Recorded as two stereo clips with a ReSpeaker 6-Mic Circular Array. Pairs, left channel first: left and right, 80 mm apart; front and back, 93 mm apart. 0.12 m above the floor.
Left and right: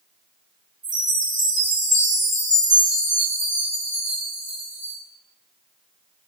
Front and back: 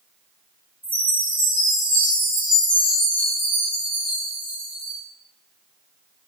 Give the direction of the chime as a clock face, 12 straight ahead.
4 o'clock.